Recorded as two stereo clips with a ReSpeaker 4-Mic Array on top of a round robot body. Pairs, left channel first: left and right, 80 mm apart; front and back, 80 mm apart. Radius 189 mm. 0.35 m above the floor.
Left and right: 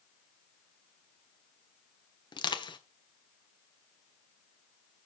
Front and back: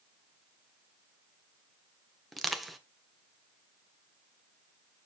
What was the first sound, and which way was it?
Crushing, 90° left.